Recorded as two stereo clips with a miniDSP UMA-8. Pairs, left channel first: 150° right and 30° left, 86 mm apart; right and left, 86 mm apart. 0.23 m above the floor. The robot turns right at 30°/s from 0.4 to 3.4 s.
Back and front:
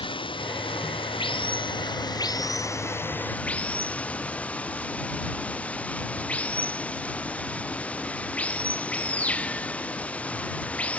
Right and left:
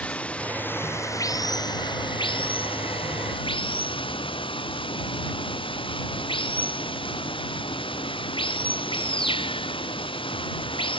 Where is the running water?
165° right; by 11.0 s 75° right.